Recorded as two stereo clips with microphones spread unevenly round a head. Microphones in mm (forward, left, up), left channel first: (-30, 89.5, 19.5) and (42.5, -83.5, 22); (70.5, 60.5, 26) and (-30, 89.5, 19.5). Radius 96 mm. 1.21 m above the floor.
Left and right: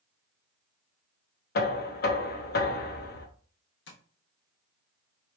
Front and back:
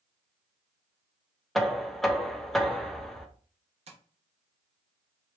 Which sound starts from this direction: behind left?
Tapping, at 3.9 s.